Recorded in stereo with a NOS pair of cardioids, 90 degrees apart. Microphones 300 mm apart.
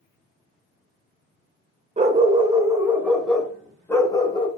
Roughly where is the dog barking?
Ahead.